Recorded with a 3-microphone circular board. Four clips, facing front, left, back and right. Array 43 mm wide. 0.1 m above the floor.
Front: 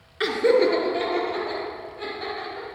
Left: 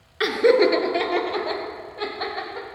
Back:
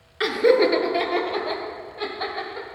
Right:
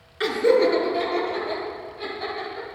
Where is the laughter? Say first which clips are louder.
Left 2 dB, back 1 dB; 105° left, 1.1 m; by 2.7 s 130° left, 4 m.